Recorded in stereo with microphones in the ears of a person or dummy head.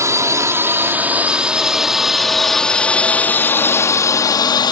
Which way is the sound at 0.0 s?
15° right (ahead or behind).